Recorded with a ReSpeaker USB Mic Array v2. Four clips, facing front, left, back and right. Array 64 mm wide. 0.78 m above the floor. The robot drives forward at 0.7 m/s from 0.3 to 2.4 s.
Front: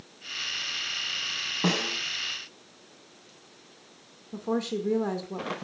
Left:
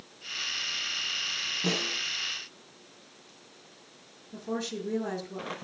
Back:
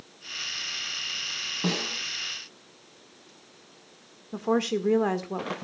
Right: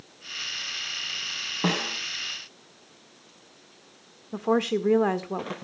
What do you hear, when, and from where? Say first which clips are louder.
1.6 s a snare drum: right 5 dB, front 2 dB; 65° right, 4.5 m; by 2.0 s 70° right, 4.5 m
4.3 s a woman speaking: right 10 dB, back 4 dB; 115° right, 1.7 m